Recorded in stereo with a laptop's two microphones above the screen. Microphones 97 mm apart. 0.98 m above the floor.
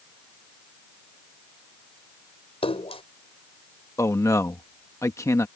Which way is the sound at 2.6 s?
80° left.